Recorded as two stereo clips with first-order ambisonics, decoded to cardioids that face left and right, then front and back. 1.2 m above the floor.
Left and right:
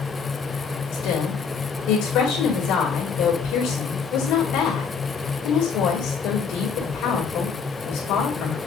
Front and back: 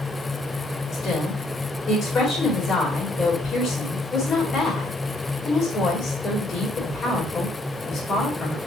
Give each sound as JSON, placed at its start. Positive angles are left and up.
{"t": 0.9, "sound": "a woman speaking", "azimuth_deg": 60, "distance_m": 2.5}